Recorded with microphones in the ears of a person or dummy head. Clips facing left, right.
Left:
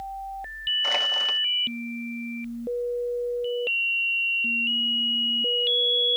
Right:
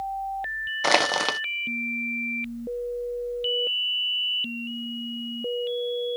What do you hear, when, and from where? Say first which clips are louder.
0.8 s crushing: right 10 dB; 75° right (ahead or behind)